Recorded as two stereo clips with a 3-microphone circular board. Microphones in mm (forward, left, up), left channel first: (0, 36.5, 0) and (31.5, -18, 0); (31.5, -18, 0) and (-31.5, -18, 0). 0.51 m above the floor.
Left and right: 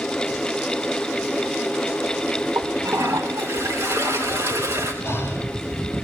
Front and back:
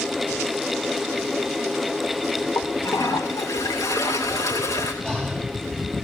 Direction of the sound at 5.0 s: 80° left.